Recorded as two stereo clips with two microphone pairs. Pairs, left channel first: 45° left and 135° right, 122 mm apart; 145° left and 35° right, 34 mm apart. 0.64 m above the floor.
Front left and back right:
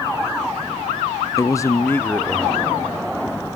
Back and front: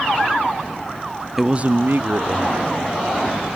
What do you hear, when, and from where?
1.4 s a man speaking: 55° left, 0.5 m; by 2.6 s 30° right, 1.9 m